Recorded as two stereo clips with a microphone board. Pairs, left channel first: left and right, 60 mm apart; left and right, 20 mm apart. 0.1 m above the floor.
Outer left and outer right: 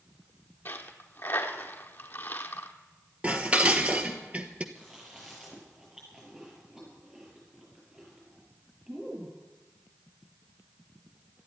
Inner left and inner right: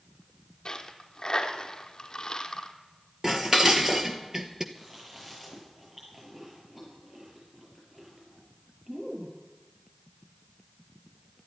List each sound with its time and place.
0.7 s a dropped coin: 35° left (ahead or behind), 1.4 m
3.2 s dishes clattering: 25° right (ahead or behind), 1.4 m
4.8 s chewing: 10° right (ahead or behind), 8 m